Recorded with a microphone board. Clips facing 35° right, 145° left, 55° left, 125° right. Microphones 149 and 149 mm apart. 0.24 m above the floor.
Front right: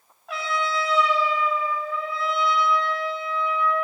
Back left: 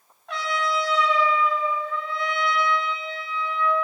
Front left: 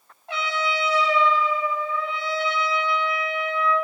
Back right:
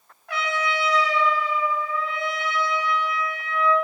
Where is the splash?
No splash in this recording.